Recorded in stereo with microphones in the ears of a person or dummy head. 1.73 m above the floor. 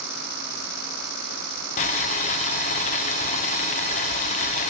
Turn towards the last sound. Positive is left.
turn(degrees=35)  # may be behind; listen again after turning